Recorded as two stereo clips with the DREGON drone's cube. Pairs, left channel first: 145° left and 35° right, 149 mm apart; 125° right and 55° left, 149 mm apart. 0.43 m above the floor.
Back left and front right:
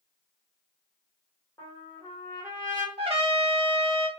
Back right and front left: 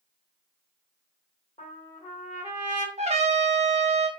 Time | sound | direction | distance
1.6 | a trumpet | 160° right | 1.5 m
3.0 | a trumpet | 15° left | 0.6 m